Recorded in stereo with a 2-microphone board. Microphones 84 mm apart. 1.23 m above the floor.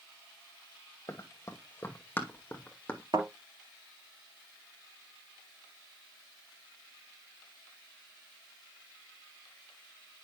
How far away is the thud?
About 2.5 m.